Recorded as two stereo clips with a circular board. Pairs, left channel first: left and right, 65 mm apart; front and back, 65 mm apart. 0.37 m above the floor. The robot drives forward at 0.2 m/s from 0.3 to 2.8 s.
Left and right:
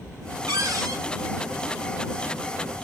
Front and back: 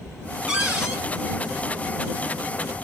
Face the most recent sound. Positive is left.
turn(degrees=-120)